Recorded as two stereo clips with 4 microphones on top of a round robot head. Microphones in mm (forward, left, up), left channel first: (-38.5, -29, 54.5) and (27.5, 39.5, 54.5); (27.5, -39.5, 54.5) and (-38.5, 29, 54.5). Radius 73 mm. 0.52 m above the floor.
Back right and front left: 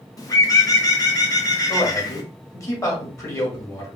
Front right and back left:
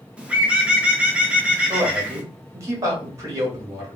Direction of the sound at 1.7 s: 175° left.